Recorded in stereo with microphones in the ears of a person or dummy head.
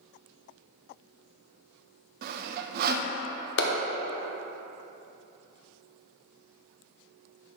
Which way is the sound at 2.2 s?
55° right (ahead or behind).